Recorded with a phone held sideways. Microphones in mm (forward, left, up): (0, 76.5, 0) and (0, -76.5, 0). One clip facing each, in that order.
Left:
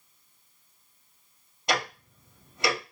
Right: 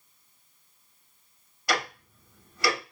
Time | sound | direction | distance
1.7 | ticking | 20° left (ahead or behind) | 1.2 m